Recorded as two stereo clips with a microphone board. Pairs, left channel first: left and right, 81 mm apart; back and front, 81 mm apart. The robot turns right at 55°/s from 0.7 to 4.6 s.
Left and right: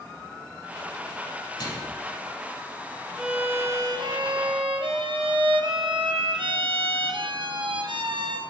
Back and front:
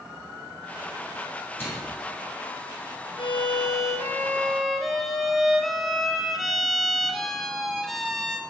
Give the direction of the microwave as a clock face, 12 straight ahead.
8 o'clock.